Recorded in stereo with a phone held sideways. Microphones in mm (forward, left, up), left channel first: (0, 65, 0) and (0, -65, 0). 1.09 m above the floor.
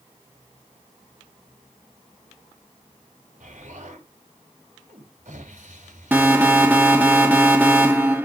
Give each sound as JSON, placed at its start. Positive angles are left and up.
{"t": 3.4, "sound": "an explosion", "side_deg": -70, "distance_m": 4.5}
{"t": 6.1, "sound": "an alarm", "side_deg": -15, "distance_m": 1.9}